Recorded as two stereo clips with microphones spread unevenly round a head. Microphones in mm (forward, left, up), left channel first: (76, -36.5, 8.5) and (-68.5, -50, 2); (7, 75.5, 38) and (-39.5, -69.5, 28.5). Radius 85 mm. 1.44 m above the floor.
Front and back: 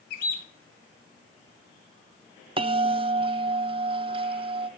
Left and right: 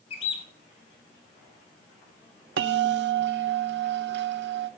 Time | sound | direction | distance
0.1 | a bird | 20° left | 1.1 m
2.6 | a bell | 120° right | 0.6 m